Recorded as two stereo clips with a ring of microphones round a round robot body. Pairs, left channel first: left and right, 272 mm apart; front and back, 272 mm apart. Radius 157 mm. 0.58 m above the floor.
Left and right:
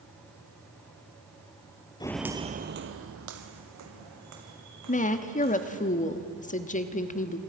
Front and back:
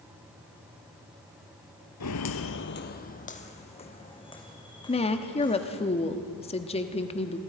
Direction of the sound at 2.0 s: 20° left.